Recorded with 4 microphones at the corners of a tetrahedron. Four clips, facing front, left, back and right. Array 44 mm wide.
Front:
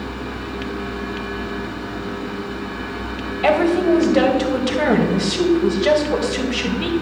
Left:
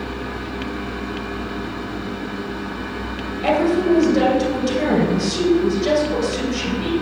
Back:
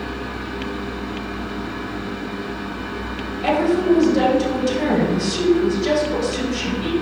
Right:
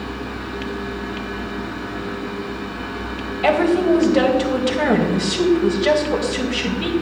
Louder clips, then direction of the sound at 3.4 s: Right 1 dB, front 1 dB; 35° right.